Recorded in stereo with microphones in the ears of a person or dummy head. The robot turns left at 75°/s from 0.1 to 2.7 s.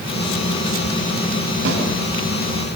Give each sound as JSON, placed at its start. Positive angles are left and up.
{"t": 1.6, "sound": "a snare drum", "side_deg": -65, "distance_m": 9.5}